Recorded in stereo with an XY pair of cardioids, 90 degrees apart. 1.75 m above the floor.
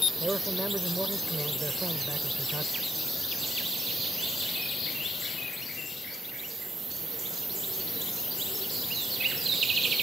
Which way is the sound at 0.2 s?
20° right.